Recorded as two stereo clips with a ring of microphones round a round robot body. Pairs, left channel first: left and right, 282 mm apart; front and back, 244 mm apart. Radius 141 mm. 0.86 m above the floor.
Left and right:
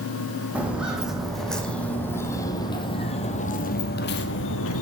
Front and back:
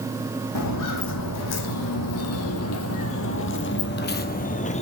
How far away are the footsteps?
About 2.5 m.